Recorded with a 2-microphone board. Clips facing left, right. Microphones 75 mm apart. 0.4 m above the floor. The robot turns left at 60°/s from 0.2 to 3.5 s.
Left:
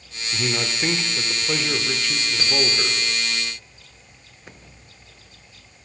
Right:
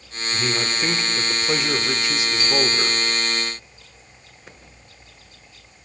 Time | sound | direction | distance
0.3 | a man speaking | 5° left (ahead or behind) | 0.8 m
2.4 | a bicycle bell | 105° left | 4 m